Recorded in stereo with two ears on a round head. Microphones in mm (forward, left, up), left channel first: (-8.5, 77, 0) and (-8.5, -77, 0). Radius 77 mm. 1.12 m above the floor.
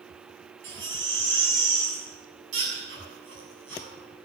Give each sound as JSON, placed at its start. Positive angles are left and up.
{"t": 0.6, "sound": "a baby crying", "side_deg": -90, "distance_m": 7.0}